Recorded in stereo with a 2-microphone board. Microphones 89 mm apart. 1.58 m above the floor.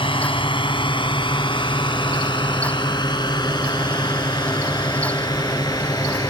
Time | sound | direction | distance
0.0 | a drone | 75° left (ahead or behind) | ?